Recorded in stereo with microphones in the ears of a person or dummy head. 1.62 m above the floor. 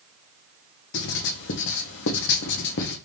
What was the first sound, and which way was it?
Writing, 60° left (ahead or behind).